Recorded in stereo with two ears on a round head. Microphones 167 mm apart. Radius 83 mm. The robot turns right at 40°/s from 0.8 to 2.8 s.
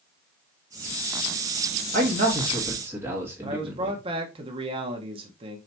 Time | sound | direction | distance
1.9 | a man speaking | 45° right | 1.9 m
3.4 | a man speaking | 30° right (ahead or behind) | 1.0 m